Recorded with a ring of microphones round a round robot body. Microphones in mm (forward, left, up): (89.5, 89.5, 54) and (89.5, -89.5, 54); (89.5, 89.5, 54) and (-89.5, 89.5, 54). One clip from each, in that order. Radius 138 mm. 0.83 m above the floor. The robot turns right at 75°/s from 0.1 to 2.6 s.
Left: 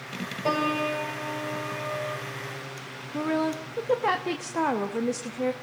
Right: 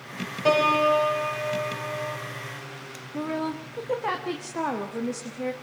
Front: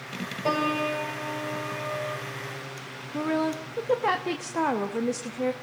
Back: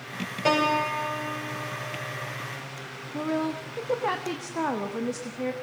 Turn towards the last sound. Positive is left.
turn(degrees=45)